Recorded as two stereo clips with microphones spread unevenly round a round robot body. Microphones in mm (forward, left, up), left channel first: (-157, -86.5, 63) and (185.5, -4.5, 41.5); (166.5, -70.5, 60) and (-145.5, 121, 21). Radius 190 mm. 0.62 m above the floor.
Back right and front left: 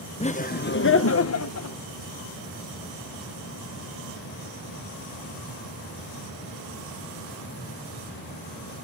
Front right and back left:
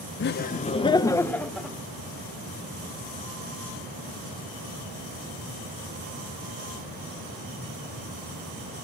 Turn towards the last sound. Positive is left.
turn(degrees=-125)